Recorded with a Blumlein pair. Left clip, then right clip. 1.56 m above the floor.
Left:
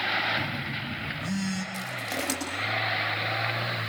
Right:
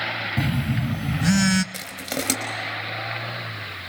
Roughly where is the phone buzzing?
Ahead right.